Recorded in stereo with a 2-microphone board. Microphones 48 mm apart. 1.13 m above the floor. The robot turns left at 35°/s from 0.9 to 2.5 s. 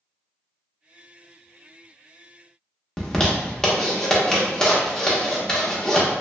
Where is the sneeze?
I don't hear a sneeze.